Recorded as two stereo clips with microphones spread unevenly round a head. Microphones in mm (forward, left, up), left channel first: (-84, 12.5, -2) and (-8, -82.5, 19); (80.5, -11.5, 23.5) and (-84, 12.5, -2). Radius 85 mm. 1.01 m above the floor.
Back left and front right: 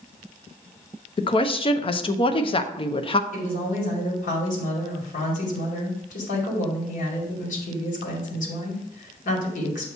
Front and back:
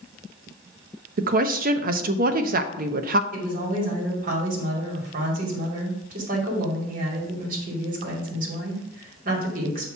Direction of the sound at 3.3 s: 130° left.